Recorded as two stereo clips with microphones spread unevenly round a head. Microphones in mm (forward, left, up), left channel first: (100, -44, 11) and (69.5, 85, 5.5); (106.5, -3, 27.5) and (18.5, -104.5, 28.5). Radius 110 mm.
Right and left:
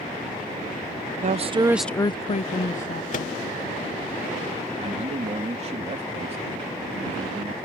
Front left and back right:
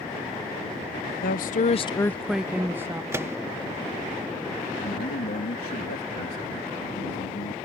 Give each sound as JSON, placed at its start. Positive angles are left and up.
{"t": 1.2, "sound": "a woman speaking", "azimuth_deg": 75}
{"t": 3.1, "sound": "a microwave", "azimuth_deg": -60}
{"t": 4.8, "sound": "a man speaking", "azimuth_deg": 65}